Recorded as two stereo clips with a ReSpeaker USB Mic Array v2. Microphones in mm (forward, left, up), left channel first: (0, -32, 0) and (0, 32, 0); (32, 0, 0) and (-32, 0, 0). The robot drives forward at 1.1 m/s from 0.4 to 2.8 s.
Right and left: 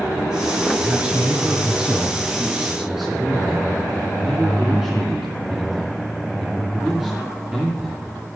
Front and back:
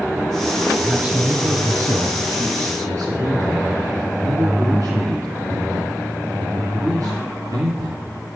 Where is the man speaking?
115° left, 1.4 m; by 8.0 s 170° left, 3 m.